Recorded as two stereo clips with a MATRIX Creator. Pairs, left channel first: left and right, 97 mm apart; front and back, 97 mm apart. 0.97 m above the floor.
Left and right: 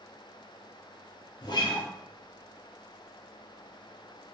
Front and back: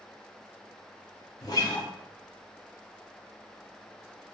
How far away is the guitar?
About 0.7 m.